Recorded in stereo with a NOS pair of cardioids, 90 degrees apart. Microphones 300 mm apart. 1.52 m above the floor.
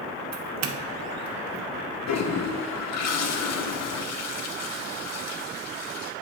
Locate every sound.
0.3 s a doorbell: 60° right, 1.0 m
2.1 s a toilet flushing: 60° left, 1.4 m